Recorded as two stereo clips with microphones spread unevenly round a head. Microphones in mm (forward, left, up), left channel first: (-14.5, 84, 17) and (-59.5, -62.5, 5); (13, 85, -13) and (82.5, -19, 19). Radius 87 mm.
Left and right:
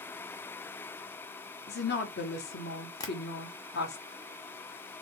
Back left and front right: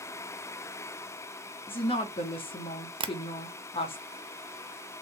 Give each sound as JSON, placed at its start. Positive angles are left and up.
{"t": 1.7, "sound": "a woman speaking", "azimuth_deg": 75, "distance_m": 1.4}
{"t": 3.0, "sound": "tapping", "azimuth_deg": 0, "distance_m": 0.5}